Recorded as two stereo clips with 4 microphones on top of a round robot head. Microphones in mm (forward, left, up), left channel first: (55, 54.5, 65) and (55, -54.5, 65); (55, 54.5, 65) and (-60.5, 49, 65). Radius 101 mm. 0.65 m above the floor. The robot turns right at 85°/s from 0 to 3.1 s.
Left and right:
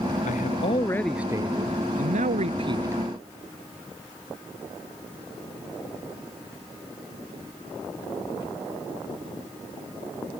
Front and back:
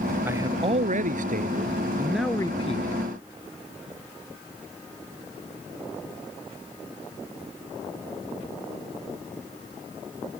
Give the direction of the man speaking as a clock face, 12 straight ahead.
8 o'clock.